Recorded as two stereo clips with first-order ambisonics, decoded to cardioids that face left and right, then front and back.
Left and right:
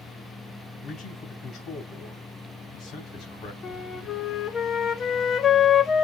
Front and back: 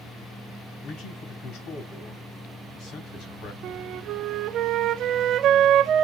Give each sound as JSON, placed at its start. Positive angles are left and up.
{"t": 0.8, "sound": "a man speaking", "azimuth_deg": 35, "distance_m": 3.5}
{"t": 3.6, "sound": "a flute", "azimuth_deg": 145, "distance_m": 0.8}